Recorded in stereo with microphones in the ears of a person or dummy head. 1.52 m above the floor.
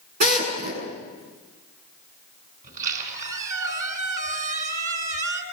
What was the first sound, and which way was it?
A drill, 45° right (ahead or behind).